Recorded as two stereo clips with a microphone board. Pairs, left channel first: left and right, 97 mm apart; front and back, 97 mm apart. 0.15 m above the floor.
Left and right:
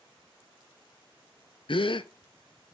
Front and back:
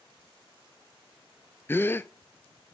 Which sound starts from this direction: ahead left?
A gasp, at 1.7 s.